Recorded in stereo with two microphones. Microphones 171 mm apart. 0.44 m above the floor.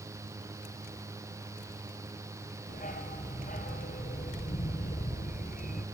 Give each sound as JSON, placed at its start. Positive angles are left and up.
{"t": 2.7, "sound": "a dog barking", "side_deg": 50, "distance_m": 2.5}